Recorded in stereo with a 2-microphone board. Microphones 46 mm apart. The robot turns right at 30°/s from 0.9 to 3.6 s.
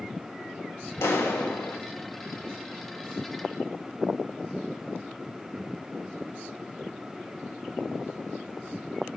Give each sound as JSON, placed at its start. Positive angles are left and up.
{"t": 1.0, "sound": "a clap", "side_deg": 70, "distance_m": 1.8}